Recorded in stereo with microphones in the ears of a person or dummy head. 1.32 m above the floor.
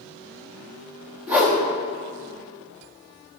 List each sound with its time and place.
1.3 s a whoosh: 5° right (ahead or behind), 0.9 m